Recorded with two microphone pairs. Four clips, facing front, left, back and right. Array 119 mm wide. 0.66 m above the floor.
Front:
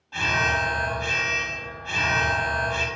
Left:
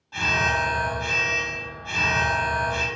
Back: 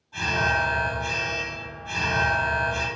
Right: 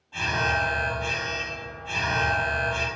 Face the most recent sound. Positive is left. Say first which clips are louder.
# left 2 dB, even
turn(degrees=35)